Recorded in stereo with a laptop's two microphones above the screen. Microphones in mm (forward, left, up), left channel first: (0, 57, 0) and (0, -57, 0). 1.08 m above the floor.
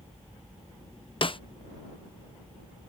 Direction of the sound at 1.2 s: 50° left (ahead or behind).